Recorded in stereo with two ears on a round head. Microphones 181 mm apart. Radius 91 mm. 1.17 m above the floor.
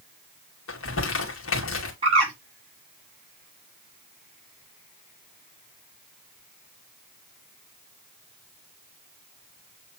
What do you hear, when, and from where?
0.7 s crumpling: 70° left (ahead or behind), 2.5 m
2.0 s a bird: 30° right (ahead or behind), 5 m